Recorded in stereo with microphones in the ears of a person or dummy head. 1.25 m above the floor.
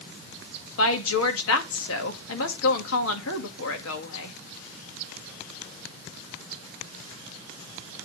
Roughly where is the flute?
No flute in this recording.